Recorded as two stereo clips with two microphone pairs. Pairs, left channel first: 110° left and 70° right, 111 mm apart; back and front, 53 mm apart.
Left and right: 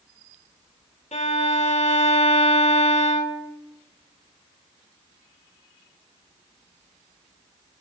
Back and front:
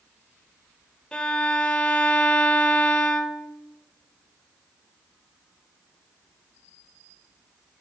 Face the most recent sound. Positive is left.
turn(degrees=105)